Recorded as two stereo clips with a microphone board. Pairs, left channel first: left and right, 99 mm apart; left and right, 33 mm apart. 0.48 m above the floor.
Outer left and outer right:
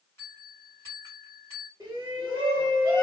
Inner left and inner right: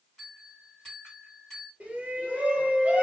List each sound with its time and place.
0.2 s a bell: 25° left (ahead or behind), 2 m
1.8 s a shout: 30° right (ahead or behind), 1.2 m